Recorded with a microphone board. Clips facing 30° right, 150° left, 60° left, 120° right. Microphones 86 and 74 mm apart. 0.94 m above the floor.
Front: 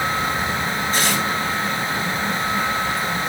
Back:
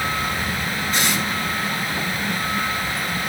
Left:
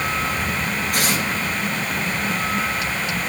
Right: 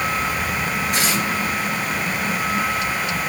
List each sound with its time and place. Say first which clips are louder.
0.9 s tearing paper: front 1 dB, even; 25° left, 6 m